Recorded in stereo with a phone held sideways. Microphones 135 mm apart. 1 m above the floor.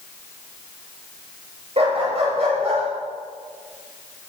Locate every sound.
1.8 s a dog barking: 50° right (ahead or behind), 8.5 m; by 2.8 s 55° right (ahead or behind), 9.5 m